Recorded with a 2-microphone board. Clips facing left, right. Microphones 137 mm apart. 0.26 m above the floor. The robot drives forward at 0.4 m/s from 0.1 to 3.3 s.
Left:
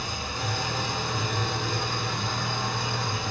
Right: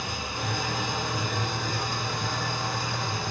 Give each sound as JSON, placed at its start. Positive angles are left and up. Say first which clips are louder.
{"t": 0.0, "sound": "an engine running", "louder": "even", "side_deg": -10, "distance_m": 2.5}